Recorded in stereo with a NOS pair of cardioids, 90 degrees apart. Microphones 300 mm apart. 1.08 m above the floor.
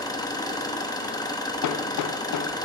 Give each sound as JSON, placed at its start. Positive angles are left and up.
{"t": 0.0, "sound": "an engine running", "azimuth_deg": 10, "distance_m": 1.1}
{"t": 1.6, "sound": "hammering", "azimuth_deg": 65, "distance_m": 0.6}